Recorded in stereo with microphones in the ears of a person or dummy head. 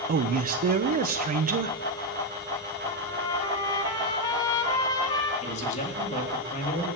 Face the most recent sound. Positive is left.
turn(degrees=40)  # may be behind; listen again after turning